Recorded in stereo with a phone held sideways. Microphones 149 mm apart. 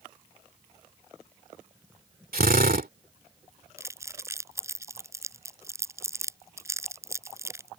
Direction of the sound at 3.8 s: 20° right (ahead or behind).